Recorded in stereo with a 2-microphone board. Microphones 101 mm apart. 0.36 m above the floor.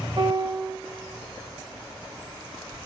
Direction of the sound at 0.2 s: 50° right (ahead or behind).